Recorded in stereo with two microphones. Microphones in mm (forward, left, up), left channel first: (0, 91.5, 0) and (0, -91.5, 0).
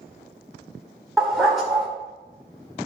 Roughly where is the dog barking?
Centre.